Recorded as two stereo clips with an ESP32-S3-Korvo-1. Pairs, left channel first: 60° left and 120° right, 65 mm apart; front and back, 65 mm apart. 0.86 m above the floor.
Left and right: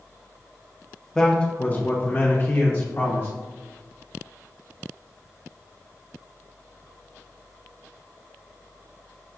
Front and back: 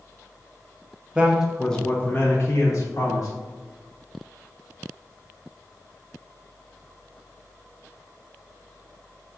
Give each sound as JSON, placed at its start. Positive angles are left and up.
{"t": 1.1, "sound": "a man speaking", "azimuth_deg": 130, "distance_m": 0.6}